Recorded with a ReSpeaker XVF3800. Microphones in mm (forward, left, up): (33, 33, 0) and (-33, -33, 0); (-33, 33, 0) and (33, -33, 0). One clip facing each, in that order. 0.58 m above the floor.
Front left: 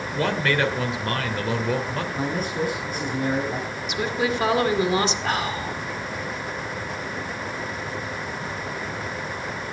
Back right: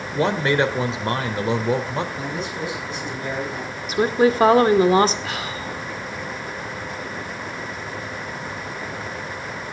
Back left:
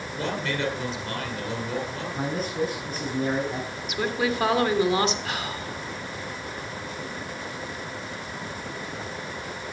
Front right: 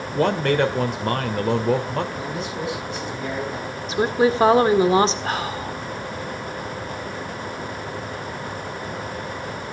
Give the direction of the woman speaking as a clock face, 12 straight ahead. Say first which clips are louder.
Back right 8 dB, front right 8 dB; 3 o'clock.